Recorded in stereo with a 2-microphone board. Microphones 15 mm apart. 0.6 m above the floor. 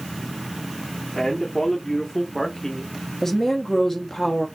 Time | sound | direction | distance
1.1 | a man speaking | 40° left (ahead or behind) | 1.5 m
3.2 | a woman speaking | 20° left (ahead or behind) | 1.0 m